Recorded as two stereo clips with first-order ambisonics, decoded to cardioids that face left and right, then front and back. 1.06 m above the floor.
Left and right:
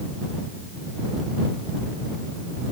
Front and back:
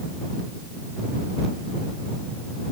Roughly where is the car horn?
No car horn in this recording.